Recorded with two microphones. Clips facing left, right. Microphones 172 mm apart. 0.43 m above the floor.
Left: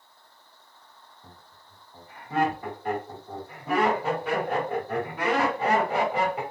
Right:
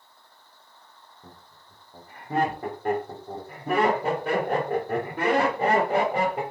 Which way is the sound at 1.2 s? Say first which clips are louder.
Right 4 dB; 50° right (ahead or behind).